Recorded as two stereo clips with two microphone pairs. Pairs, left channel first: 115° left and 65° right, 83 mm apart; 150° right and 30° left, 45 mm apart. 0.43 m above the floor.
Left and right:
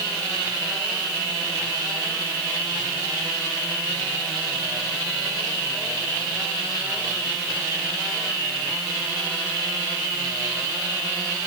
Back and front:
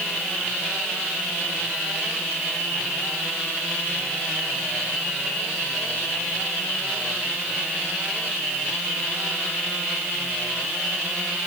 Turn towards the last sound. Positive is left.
No sound to turn to.